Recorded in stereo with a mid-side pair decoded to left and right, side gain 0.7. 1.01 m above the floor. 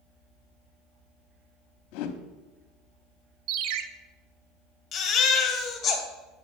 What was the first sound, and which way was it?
A whoosh, 65° left.